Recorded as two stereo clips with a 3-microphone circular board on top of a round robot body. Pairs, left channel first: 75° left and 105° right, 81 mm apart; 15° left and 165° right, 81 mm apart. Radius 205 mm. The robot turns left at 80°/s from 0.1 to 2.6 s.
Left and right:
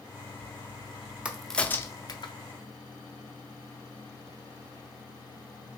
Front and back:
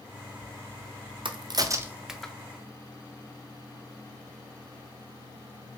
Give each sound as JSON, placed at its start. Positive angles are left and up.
{"t": 1.2, "sound": "a crack", "azimuth_deg": 180, "distance_m": 0.6}